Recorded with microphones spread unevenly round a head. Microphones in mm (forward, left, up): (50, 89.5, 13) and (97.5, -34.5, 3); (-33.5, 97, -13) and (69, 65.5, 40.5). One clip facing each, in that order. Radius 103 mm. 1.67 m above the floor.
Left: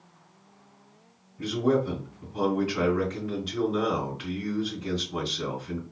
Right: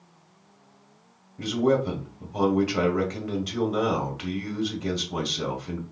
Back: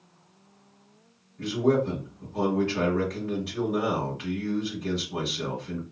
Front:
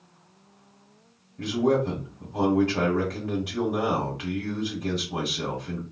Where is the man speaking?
80° right, 1.4 m.